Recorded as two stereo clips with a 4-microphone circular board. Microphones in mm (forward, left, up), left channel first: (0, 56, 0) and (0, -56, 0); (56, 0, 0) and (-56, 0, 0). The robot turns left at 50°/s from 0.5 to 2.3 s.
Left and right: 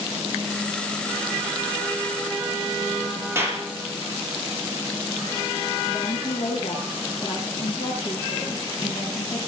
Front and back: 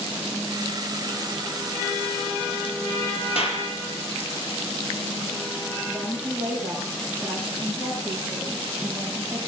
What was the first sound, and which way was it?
A clap, 25° right.